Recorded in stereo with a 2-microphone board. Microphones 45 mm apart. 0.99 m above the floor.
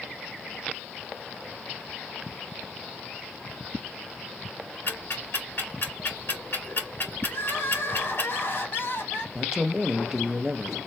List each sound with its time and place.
4.9 s ticking: 50° left (ahead or behind), 2 m
7.3 s crying: 55° left (ahead or behind), 1.3 m
9.3 s a man speaking: 10° right (ahead or behind), 0.6 m